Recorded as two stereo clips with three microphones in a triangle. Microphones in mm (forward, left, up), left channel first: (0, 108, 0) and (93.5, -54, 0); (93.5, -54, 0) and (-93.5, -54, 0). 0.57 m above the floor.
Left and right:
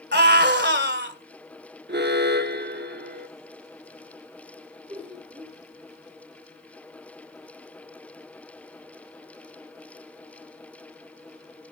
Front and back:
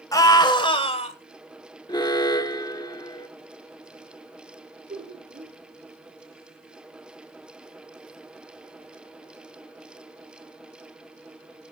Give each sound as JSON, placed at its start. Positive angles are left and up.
{"t": 0.1, "sound": "a scream", "azimuth_deg": -70, "distance_m": 2.5}
{"t": 1.9, "sound": "an alarm", "azimuth_deg": -65, "distance_m": 0.8}
{"t": 4.9, "sound": "laughter", "azimuth_deg": -120, "distance_m": 7.5}